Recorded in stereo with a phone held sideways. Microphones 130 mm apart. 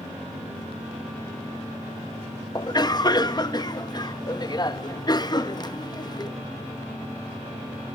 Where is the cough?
30° left (ahead or behind), 1.1 m.